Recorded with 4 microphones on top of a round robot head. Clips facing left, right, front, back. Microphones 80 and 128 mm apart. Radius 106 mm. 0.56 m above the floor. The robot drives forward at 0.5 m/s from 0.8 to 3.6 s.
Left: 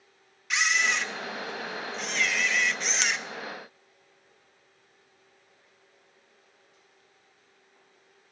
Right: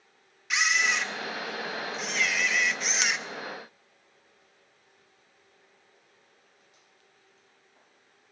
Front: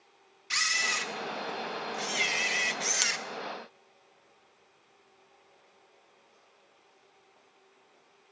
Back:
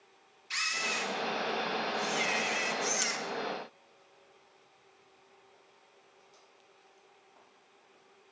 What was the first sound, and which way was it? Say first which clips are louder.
A camera shutter: even, front 2 dB; straight ahead.